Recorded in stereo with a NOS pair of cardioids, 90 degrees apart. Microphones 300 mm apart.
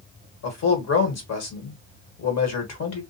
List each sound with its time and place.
0.4 s a man speaking: 60° left, 1.5 m